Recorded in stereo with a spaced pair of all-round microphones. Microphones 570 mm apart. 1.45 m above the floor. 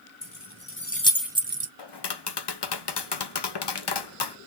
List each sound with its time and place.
0.2 s keys jangling: 35° left (ahead or behind), 1.0 m; by 1.7 s 30° right (ahead or behind), 0.5 m
1.8 s tapping: 45° left (ahead or behind), 0.5 m